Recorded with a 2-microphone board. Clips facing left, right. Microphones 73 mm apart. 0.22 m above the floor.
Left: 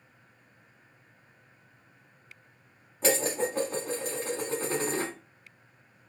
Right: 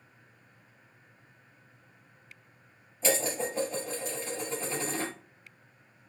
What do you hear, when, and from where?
3.0 s dishes clattering: 60° left (ahead or behind), 1.3 m